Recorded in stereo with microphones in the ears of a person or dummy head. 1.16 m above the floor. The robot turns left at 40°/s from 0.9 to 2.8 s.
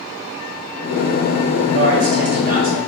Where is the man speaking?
120° right, 1.6 m; by 2.8 s 165° right, 1.6 m.